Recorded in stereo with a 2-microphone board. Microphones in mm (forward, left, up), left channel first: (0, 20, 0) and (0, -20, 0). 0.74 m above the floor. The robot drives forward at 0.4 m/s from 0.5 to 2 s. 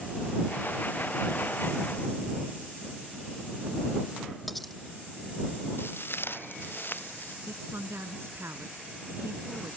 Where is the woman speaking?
85° right.